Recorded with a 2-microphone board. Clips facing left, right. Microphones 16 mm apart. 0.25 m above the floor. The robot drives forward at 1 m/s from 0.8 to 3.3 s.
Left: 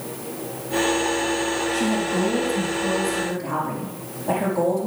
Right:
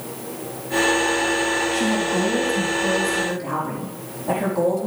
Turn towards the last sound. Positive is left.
turn(degrees=-5)  # may be behind; listen again after turning